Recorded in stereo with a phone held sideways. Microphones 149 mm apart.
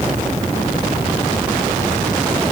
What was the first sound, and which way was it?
Only background noise.